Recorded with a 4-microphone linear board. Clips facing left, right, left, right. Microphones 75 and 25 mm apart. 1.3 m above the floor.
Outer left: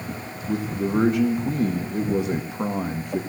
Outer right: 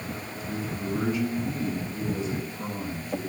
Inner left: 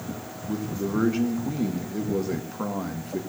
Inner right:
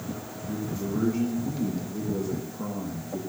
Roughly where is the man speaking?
Left.